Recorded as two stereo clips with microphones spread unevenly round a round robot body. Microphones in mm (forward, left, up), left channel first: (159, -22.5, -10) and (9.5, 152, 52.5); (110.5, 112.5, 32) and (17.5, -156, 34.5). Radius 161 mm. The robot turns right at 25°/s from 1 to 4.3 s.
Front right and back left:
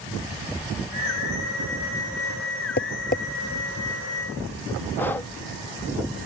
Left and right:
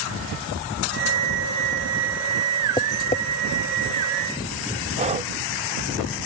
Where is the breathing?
75° right.